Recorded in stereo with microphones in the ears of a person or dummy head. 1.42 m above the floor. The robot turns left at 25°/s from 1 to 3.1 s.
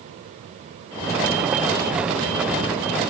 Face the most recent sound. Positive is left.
No sound to turn to.